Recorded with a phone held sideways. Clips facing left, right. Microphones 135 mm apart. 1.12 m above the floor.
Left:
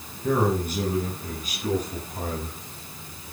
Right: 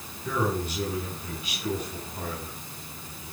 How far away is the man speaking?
About 7 m.